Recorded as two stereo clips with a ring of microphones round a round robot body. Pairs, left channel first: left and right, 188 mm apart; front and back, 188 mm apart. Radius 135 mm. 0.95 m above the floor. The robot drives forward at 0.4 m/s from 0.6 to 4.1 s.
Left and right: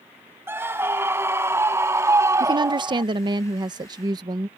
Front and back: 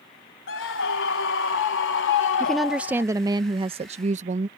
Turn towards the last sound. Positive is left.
turn(degrees=-150)